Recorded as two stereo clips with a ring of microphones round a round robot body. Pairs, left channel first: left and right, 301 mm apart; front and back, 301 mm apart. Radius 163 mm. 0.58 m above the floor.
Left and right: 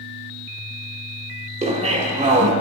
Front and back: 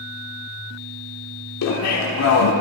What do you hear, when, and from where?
1.6 s laughter: 25° right, 1.5 m